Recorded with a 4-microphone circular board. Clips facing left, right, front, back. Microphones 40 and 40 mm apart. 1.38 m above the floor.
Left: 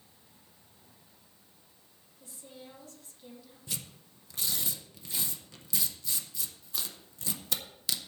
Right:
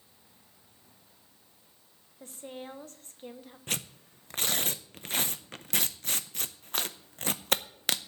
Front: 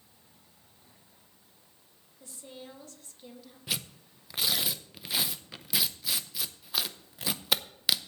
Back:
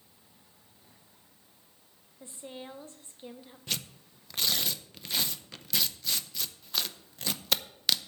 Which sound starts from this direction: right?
Tearing paper, at 3.7 s.